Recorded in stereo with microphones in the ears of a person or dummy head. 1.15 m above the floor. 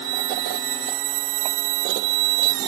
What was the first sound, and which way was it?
Only background noise.